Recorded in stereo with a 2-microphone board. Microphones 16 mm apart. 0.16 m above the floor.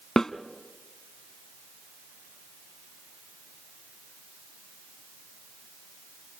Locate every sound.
0.2 s a snare drum: 35° left (ahead or behind), 0.8 m